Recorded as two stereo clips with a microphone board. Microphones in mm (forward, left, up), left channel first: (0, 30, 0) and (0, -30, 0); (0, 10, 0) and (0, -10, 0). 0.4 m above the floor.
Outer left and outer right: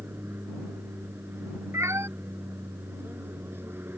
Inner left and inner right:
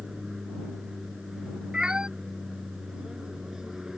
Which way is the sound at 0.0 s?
35° right (ahead or behind).